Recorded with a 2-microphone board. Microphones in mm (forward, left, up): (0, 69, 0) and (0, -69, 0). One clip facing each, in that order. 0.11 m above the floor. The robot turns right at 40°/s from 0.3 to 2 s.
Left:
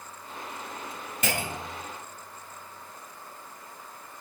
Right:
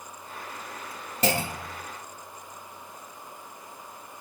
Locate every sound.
1.2 s a clunk: 35° right (ahead or behind), 0.6 m; by 1.8 s 40° right (ahead or behind), 0.6 m